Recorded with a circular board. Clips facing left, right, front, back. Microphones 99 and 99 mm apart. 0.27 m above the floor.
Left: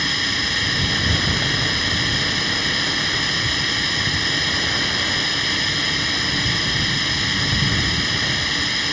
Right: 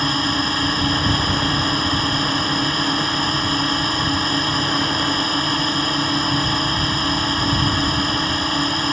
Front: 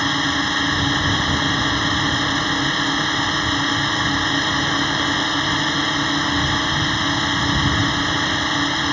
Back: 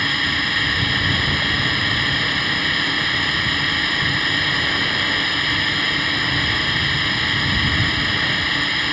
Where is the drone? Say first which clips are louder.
Right 6 dB, front 3 dB; 55° right.